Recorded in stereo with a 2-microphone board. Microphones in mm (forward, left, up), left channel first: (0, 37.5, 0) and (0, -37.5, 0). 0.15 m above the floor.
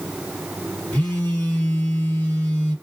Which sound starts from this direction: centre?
A phone buzzing, at 0.9 s.